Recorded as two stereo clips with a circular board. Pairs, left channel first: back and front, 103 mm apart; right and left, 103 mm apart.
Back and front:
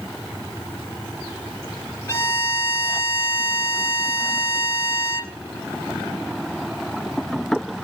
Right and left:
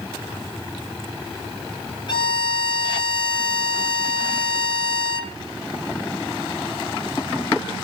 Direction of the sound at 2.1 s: 115° right.